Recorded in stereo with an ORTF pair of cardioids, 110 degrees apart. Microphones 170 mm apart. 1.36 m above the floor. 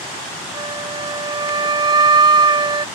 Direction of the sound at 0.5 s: 25° right.